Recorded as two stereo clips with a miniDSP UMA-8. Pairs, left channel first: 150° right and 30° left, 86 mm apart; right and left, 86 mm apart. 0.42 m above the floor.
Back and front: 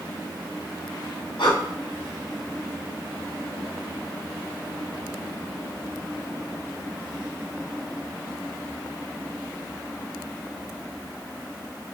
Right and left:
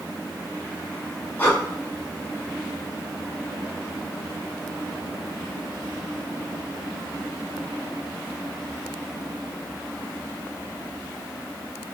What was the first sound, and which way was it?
Breathing, 160° right.